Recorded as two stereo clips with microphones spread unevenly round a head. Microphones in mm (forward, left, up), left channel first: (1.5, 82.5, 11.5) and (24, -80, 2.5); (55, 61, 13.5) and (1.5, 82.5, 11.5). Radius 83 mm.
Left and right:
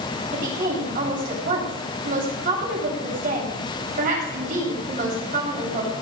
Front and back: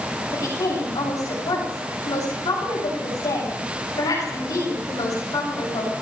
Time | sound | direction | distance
0.3 | a woman speaking | 40° right | 7.5 m